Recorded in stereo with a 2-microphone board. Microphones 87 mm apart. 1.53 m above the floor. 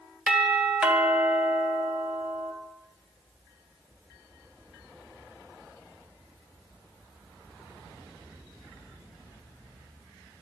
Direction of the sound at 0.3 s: 10° right (ahead or behind).